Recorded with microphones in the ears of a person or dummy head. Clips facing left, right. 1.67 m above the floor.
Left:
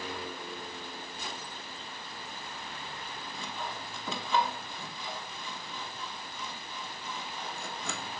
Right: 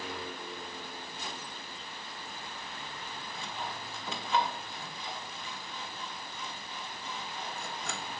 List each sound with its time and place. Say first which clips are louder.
3.3 s sawing: left 1 dB; 85° left, 1.0 m